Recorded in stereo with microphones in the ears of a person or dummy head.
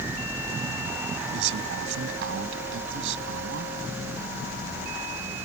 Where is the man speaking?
75° right (ahead or behind).